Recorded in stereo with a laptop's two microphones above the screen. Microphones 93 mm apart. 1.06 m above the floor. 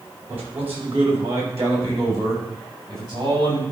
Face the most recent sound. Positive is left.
turn(degrees=-40)  # may be behind; listen again after turning